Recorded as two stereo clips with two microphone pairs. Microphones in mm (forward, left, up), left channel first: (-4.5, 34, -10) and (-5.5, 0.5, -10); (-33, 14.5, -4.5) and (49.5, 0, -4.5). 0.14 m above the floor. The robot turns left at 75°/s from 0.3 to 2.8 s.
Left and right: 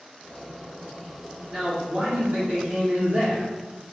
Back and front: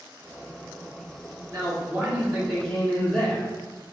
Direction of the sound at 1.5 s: 25° right.